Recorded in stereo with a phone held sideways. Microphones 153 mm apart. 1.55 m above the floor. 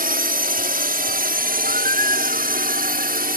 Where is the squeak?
65° right (ahead or behind).